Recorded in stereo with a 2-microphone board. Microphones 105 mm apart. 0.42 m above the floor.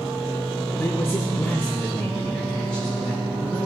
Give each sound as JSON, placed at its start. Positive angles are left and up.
{"t": 0.8, "sound": "a man speaking", "side_deg": 20, "distance_m": 0.7}